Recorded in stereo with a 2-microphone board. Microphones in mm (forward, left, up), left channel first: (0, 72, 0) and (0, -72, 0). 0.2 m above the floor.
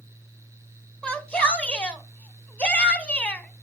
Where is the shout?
10° left (ahead or behind), 1.1 m.